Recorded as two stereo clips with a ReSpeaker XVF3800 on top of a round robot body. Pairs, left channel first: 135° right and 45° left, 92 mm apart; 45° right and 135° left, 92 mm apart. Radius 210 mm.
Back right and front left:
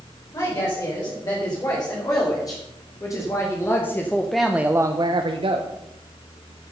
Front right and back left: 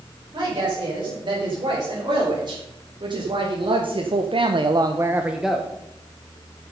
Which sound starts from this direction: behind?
A woman speaking, at 0.3 s.